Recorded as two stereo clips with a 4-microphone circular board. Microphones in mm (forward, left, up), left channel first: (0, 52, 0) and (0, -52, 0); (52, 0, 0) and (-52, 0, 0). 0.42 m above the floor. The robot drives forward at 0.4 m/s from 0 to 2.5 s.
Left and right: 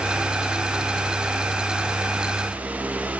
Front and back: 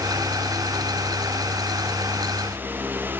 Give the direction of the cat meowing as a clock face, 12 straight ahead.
No cat meowing in this recording.